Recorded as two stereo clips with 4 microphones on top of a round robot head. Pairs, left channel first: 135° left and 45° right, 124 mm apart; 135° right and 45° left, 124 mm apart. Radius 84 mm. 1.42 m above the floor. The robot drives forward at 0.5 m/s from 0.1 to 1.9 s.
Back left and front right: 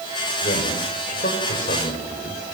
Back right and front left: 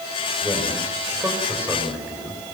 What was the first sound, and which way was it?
A man speaking, 120° left.